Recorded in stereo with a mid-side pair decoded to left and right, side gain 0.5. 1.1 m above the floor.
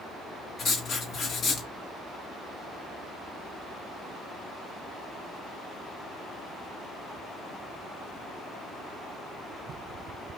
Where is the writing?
60° left, 1.8 m.